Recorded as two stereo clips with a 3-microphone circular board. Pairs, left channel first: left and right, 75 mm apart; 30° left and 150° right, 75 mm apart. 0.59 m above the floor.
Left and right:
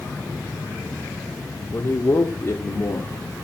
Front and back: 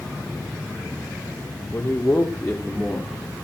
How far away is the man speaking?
About 1.8 m.